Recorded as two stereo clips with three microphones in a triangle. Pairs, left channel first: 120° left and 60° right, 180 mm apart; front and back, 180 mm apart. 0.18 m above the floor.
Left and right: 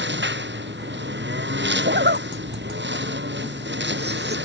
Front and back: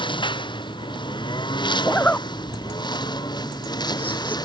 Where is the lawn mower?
65° right; by 4.5 s 70° right.